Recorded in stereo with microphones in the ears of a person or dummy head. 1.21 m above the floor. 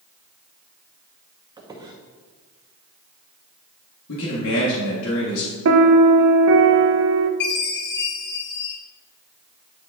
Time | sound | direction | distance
1.6 | a squeak | 20° right (ahead or behind) | 0.9 m
4.1 | a man speaking | 70° left (ahead or behind) | 1.5 m
5.7 | a piano | 65° right (ahead or behind) | 0.7 m
7.4 | a chime | 60° left (ahead or behind) | 2.5 m